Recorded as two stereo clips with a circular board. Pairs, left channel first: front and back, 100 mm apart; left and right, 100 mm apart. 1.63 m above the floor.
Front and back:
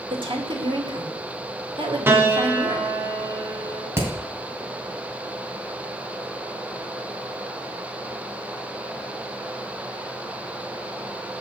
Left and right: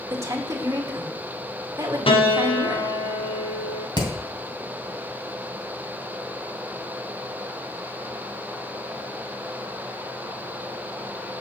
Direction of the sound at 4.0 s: 120° left.